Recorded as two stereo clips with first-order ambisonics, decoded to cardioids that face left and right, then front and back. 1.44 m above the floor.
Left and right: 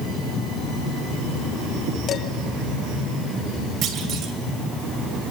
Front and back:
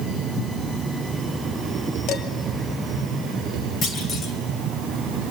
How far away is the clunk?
About 2.5 m.